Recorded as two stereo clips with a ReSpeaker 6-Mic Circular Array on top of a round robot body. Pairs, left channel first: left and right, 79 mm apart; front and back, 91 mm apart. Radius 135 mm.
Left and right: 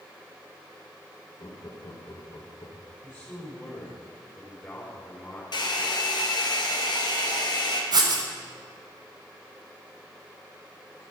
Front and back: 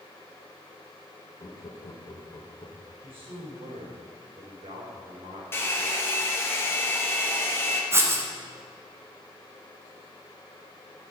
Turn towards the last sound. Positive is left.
turn(degrees=-120)